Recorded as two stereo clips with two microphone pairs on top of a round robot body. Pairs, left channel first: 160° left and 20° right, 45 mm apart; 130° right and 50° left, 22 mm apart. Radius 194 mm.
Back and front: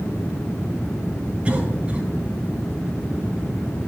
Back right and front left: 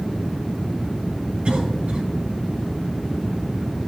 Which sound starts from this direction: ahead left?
A cough, at 1.4 s.